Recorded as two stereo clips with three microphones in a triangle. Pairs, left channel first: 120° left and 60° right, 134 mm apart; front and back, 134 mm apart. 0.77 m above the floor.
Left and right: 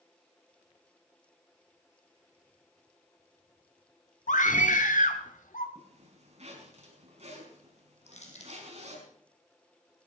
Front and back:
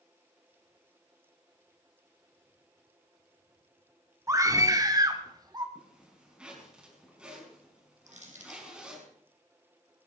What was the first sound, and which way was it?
A scream, 115° left.